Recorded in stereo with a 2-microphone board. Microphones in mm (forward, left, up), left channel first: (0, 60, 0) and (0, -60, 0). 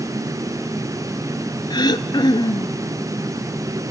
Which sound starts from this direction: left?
Throat clearing, at 1.7 s.